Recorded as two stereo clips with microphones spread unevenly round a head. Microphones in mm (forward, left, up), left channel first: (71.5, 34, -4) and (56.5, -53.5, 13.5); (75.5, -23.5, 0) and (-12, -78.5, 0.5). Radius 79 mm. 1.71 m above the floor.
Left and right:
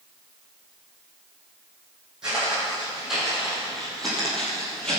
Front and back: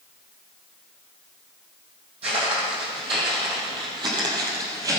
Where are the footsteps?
175° right, 3 m; by 5.0 s 175° left, 2 m.